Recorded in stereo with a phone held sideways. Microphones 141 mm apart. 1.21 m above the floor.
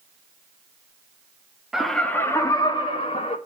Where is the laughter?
5° right (ahead or behind), 1.5 m; by 3.4 s 45° left (ahead or behind), 2.5 m.